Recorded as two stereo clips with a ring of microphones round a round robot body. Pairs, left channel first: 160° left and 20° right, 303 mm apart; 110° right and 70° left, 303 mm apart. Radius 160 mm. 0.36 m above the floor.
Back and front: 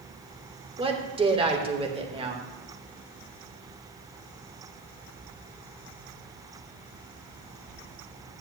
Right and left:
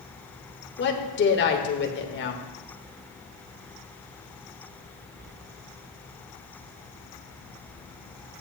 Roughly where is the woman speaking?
Right.